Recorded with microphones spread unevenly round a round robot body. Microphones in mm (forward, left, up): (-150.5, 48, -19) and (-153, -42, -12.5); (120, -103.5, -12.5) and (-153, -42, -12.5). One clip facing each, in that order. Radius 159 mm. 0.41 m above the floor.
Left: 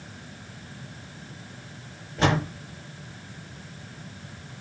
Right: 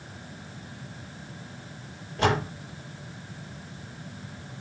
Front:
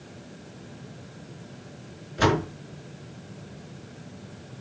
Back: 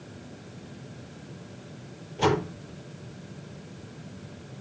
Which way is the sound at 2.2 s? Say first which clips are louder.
Left 1 dB, front 1 dB; 20° left.